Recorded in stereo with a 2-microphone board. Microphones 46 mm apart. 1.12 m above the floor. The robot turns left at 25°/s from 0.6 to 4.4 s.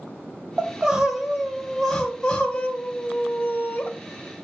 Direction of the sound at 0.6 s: 150° right.